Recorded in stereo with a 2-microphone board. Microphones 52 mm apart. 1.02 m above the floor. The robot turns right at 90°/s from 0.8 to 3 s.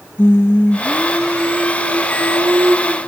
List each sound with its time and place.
0.2 s singing: 135° left, 0.8 m; by 3.0 s 25° right, 0.8 m